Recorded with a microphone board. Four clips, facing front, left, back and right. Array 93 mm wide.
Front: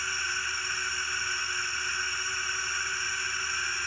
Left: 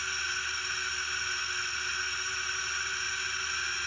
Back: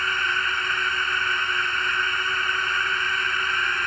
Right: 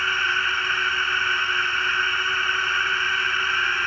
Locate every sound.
0.0 s a drone: 130° right